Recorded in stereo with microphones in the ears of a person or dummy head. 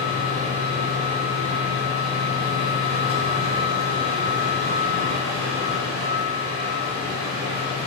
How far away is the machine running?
About 1.7 m.